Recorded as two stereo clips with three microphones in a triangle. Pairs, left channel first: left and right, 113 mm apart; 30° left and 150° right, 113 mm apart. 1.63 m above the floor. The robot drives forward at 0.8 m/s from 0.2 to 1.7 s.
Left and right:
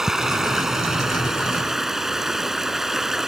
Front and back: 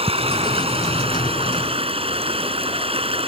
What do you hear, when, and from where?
0.0 s running water: 175° right